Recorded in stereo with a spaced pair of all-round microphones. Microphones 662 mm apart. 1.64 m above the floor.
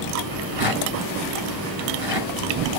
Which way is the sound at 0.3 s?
70° right (ahead or behind).